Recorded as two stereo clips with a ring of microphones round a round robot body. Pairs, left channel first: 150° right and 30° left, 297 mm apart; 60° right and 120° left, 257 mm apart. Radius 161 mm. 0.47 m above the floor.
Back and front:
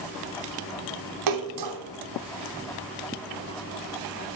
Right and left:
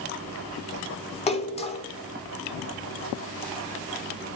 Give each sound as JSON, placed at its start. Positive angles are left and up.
{"t": 1.3, "sound": "a splash", "azimuth_deg": 5, "distance_m": 0.9}